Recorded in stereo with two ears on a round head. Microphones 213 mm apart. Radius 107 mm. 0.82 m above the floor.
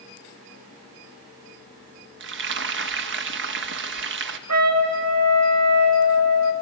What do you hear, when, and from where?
2.2 s frying: 50° right (ahead or behind), 1.2 m
4.5 s a trumpet: 70° right (ahead or behind), 1.8 m